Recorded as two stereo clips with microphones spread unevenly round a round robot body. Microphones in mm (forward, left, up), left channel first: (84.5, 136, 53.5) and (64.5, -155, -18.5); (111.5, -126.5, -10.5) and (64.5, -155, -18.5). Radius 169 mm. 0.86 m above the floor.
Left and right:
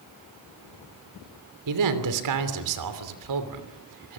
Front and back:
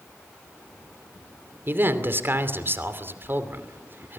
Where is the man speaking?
105° right, 3 m.